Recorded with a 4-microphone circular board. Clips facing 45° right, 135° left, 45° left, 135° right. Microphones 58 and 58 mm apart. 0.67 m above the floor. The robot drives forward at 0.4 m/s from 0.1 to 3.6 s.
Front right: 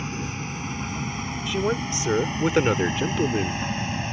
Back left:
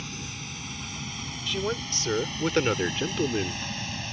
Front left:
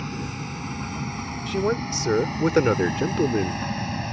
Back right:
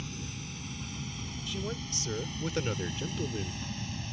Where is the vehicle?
10° left; by 4.1 s 15° left.